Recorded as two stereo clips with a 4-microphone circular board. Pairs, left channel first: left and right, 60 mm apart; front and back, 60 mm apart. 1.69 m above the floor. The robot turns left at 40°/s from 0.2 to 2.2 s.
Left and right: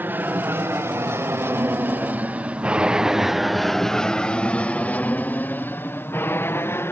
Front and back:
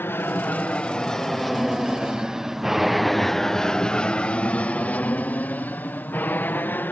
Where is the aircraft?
40° right; by 6.9 s 50° left.